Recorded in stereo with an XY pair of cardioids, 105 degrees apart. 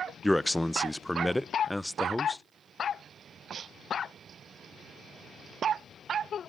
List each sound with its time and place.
0.2 s a man speaking: 5° left, 0.6 m